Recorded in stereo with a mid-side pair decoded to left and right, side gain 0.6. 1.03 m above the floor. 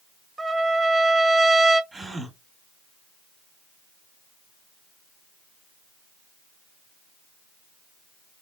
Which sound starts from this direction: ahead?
A gasp, at 1.9 s.